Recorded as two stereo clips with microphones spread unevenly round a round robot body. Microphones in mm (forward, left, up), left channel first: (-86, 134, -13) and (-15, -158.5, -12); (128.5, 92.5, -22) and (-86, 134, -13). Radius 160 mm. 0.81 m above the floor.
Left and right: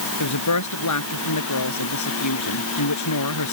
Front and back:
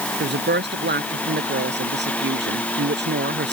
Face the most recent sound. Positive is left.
turn(degrees=130)